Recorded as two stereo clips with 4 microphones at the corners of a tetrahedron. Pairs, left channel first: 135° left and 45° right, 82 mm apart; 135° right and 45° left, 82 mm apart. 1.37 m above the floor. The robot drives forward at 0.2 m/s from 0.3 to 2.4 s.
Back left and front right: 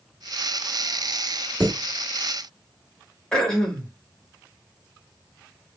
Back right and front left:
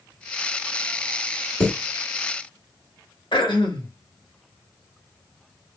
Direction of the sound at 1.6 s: 120° right.